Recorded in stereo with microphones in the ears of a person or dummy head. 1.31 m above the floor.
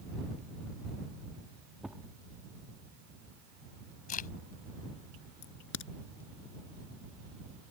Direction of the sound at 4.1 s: 45° left (ahead or behind).